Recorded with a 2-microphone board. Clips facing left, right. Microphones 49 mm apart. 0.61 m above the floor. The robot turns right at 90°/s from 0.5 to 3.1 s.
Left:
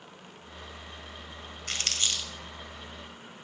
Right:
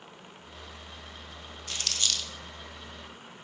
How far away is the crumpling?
About 1.6 m.